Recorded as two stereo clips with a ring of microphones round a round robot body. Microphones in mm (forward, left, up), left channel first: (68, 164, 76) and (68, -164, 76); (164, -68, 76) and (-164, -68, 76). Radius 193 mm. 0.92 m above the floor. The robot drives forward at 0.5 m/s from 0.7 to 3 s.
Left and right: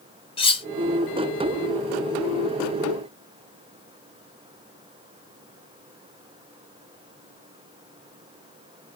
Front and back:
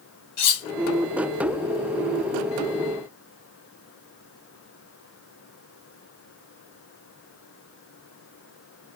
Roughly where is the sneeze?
I don't hear a sneeze.